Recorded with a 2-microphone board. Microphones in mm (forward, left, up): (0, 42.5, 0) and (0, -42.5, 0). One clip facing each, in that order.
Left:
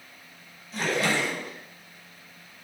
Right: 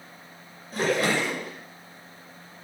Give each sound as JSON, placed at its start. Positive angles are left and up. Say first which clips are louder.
{"t": 0.7, "sound": "a splash", "louder": "right 2 dB", "side_deg": -50, "distance_m": 6.5}